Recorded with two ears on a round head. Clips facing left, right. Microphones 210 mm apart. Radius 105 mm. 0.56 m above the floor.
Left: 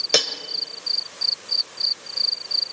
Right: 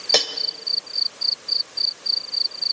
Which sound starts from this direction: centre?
Cutlery clinking, at 0.1 s.